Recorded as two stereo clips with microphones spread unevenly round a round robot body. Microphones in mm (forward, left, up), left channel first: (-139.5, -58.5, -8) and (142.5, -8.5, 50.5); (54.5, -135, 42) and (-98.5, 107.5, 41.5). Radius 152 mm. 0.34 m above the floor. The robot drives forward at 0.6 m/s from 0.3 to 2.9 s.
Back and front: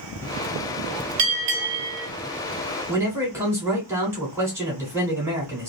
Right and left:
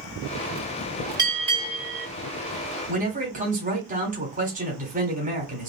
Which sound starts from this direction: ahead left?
A bell, at 1.2 s.